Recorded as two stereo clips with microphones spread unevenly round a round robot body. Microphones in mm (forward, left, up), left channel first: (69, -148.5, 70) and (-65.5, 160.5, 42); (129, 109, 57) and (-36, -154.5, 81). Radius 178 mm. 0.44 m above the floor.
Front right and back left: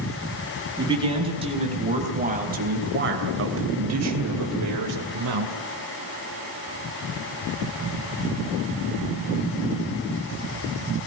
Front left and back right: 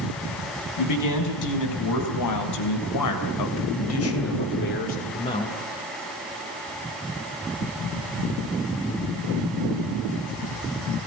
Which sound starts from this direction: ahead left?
A man speaking, at 0.8 s.